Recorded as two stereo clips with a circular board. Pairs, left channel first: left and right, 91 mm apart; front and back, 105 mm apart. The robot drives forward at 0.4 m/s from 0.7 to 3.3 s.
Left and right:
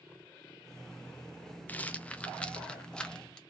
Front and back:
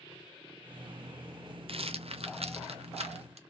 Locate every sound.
1.7 s a rattle: 160° left, 0.5 m; by 3.4 s 170° left, 1.2 m